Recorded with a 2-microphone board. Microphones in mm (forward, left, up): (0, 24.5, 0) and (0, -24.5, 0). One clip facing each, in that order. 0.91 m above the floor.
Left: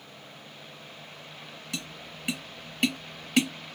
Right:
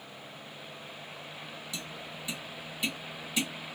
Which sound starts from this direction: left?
Tapping, at 1.7 s.